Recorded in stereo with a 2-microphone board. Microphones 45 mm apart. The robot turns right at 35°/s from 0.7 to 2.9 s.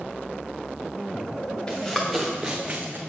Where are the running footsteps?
20° left (ahead or behind), 1.6 m; by 3.0 s 45° right (ahead or behind), 1.0 m.